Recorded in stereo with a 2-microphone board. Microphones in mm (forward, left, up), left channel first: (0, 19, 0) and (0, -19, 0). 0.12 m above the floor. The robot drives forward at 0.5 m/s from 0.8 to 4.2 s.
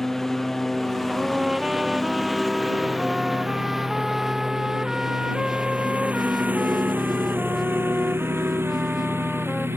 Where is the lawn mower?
5° left (ahead or behind); by 9.8 s 75° right (ahead or behind).